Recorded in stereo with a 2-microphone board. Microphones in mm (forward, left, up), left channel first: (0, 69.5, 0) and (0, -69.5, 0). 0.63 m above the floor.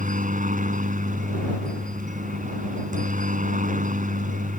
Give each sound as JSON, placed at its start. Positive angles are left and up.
{"t": 0.0, "sound": "a helicopter", "side_deg": -65}